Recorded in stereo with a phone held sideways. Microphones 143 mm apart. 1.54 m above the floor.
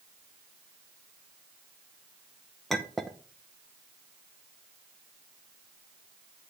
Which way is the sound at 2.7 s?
Centre (ahead or behind).